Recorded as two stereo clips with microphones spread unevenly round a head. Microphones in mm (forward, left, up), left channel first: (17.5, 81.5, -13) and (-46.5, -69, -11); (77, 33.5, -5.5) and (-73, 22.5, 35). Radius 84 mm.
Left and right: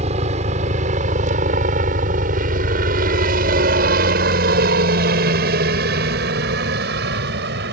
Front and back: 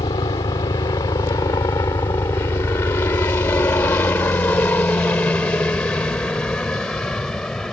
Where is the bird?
I don't hear a bird.